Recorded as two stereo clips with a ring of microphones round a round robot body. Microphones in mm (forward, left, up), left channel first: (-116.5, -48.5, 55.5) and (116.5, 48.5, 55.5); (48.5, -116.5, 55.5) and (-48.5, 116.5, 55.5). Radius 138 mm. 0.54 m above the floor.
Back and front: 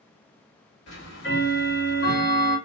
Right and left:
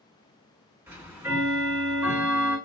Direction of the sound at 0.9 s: 170° right.